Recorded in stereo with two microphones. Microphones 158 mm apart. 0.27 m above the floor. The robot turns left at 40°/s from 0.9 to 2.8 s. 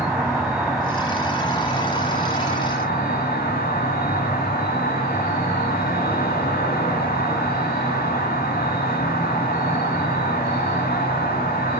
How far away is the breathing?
No breathing in this recording.